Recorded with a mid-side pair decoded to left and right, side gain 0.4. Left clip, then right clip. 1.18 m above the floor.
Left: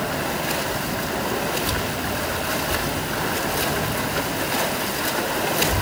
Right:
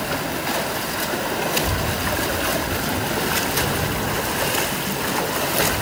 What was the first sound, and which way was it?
Only background noise.